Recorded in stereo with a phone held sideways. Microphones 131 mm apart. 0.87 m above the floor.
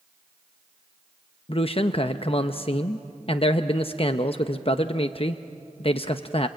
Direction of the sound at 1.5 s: 45° left (ahead or behind).